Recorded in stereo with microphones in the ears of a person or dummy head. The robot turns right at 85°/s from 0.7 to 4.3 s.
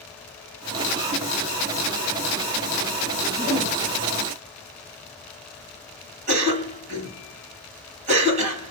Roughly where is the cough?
Right.